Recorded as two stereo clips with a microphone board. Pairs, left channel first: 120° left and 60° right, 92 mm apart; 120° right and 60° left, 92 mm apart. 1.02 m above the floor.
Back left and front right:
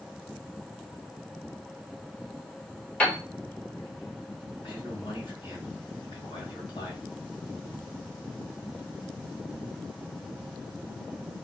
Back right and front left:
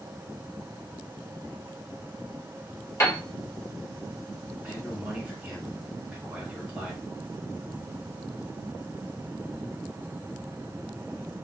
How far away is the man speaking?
About 1.5 m.